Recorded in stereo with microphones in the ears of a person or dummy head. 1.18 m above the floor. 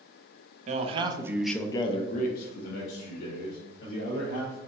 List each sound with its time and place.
0.7 s a man speaking: 40° right (ahead or behind), 0.8 m; by 4.6 s 85° left, 2 m